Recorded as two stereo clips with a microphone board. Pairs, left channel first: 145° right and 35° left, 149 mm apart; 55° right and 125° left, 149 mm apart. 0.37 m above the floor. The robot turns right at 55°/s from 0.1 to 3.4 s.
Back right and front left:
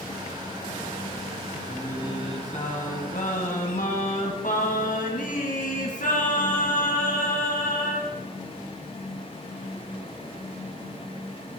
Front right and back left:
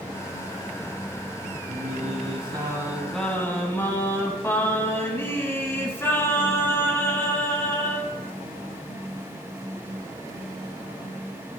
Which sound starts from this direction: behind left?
Singing, at 1.7 s.